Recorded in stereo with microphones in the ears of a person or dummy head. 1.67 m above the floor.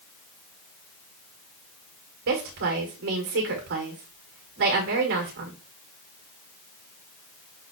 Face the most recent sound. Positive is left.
turn(degrees=-55)  # may be behind; listen again after turning